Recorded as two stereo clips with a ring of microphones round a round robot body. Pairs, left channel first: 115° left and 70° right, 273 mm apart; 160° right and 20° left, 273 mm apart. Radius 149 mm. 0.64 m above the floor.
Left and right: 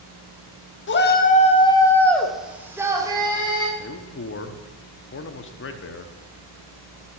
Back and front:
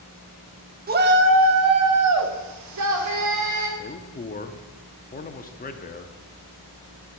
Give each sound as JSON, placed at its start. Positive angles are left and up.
{"t": 0.9, "sound": "a shout", "azimuth_deg": 75, "distance_m": 1.3}
{"t": 3.8, "sound": "a man speaking", "azimuth_deg": 150, "distance_m": 1.1}